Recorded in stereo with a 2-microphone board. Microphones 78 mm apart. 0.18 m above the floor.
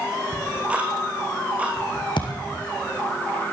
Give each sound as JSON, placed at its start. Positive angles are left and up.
{"t": 0.3, "sound": "ticking", "side_deg": -20, "distance_m": 4.5}
{"t": 2.2, "sound": "a thud", "side_deg": 75, "distance_m": 4.5}